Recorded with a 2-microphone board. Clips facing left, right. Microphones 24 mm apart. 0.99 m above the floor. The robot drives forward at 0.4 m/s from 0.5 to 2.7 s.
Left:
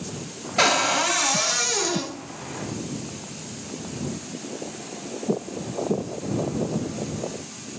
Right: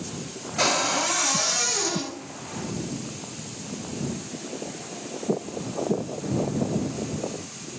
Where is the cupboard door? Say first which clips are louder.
Left 3 dB; 40° left (ahead or behind), 0.7 m; by 2.1 s 30° left (ahead or behind), 1.0 m.